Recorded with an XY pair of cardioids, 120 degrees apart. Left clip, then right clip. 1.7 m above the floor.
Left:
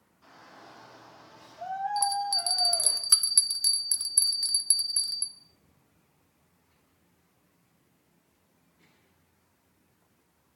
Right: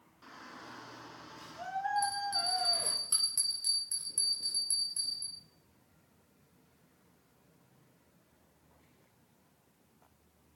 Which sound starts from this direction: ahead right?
A shout, at 0.2 s.